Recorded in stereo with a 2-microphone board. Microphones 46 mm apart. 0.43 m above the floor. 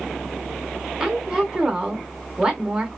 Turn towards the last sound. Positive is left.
turn(degrees=-15)  # may be behind; listen again after turning